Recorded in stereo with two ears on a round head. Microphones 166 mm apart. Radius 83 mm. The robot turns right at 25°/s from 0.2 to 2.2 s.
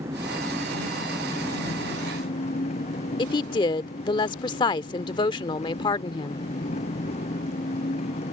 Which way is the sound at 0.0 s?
15° right.